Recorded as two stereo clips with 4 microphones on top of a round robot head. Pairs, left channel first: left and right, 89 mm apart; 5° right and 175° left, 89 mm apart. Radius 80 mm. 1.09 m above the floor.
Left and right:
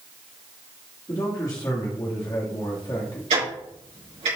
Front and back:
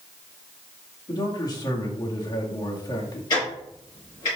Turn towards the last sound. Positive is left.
turn(degrees=-60)